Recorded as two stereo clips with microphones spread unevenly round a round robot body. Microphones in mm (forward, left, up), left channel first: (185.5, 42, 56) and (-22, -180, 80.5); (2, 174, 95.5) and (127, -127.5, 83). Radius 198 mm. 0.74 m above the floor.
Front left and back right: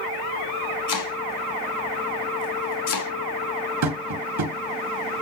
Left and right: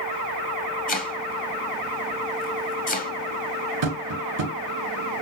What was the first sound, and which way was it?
Chopping, 45° left.